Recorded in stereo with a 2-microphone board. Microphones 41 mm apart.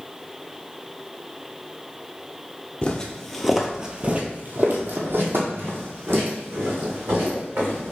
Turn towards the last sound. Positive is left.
turn(degrees=-80)